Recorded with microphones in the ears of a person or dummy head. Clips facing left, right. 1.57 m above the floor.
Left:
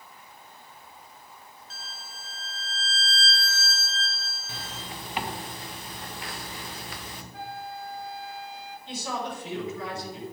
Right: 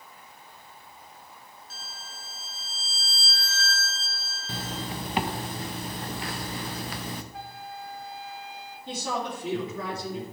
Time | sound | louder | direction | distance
1.7 | a violin | even | 80° right | 1.4 m
4.5 | a zipper | right 7 dB | 30° right (ahead or behind) | 0.6 m
7.3 | a flute | left 2 dB | 70° right (ahead or behind) | 1.6 m
8.9 | a woman speaking | right 2 dB | 45° right (ahead or behind) | 3 m